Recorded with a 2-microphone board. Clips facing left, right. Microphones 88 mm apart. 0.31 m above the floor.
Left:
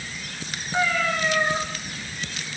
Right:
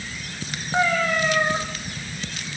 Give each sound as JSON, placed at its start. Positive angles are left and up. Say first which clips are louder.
{"t": 0.7, "sound": "a cat meowing", "louder": "right 2 dB", "side_deg": -30, "distance_m": 7.5}